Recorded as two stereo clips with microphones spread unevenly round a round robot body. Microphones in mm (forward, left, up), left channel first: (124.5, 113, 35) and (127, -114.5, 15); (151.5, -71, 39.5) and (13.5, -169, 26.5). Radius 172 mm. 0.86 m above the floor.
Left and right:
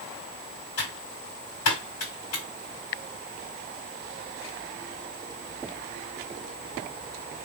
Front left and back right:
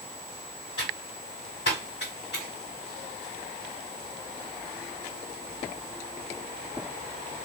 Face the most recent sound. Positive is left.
turn(degrees=95)